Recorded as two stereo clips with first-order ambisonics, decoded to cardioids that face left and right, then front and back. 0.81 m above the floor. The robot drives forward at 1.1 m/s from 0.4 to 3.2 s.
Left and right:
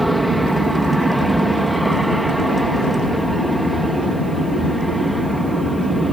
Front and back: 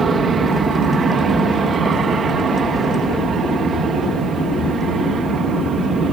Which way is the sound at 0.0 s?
175° right.